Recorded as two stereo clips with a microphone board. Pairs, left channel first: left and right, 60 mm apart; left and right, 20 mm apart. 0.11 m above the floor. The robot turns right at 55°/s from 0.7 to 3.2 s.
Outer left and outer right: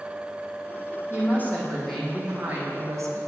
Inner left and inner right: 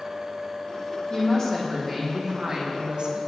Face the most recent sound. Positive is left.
turn(degrees=-115)